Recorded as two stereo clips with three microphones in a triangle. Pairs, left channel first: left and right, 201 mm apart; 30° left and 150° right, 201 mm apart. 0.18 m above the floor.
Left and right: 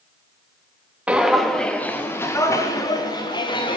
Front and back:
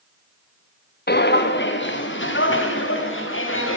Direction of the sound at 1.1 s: 5° right.